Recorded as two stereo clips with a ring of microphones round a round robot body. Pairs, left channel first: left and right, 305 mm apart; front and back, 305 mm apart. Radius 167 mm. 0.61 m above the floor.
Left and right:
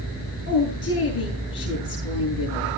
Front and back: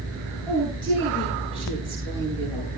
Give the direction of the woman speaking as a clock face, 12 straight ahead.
9 o'clock.